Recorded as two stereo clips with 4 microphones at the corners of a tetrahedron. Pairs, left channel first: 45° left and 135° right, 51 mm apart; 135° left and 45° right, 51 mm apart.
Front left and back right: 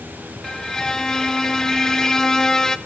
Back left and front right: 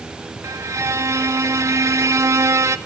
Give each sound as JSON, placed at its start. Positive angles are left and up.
{"t": 0.4, "sound": "a violin", "azimuth_deg": -35, "distance_m": 0.6}